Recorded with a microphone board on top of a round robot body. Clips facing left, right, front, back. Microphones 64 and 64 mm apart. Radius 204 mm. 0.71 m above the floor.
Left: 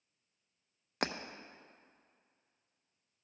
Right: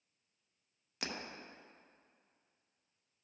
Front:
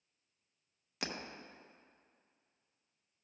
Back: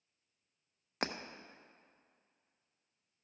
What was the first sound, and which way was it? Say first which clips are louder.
Breaking glass: left 7 dB, back 4 dB; 130° left.